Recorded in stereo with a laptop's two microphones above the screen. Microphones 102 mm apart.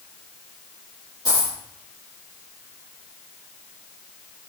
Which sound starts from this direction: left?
A dropped coin, at 1.2 s.